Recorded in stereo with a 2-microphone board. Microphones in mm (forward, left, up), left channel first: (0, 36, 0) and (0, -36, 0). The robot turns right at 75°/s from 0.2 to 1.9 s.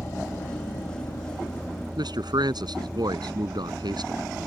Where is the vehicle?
45° left (ahead or behind); by 4.5 s 20° right (ahead or behind).